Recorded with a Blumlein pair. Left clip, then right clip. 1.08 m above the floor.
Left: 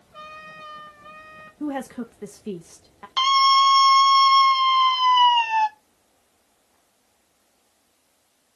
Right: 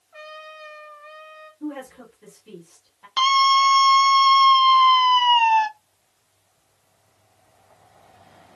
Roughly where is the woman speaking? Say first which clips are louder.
Left 5 dB; ahead left.